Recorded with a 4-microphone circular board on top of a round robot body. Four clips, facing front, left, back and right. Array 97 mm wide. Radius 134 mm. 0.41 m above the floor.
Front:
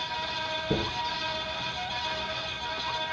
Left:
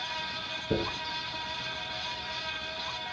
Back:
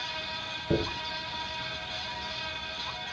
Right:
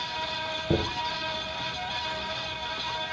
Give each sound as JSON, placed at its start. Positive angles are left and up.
{"t": 0.7, "sound": "a dropped coin", "azimuth_deg": -105, "distance_m": 2.5}